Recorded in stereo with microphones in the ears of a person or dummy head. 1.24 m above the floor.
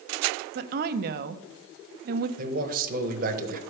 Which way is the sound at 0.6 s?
55° right (ahead or behind).